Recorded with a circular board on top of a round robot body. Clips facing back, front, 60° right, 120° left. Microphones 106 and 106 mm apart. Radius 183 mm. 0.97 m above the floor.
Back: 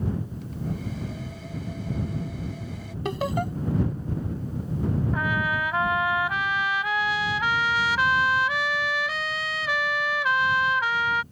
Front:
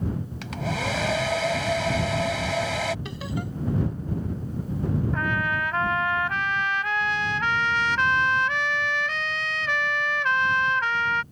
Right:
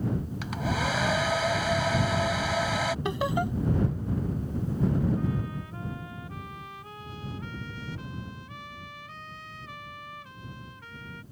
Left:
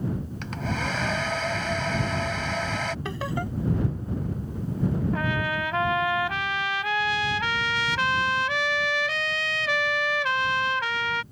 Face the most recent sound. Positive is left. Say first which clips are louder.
# even, left 4 dB
turn(degrees=95)